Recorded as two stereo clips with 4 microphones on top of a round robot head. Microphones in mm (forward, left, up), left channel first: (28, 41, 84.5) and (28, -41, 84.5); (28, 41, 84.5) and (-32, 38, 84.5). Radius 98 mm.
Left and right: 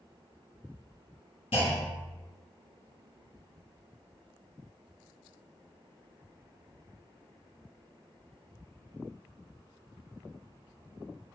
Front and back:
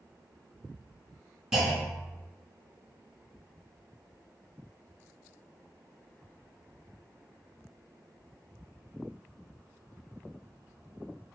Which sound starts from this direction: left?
A clunk, at 1.5 s.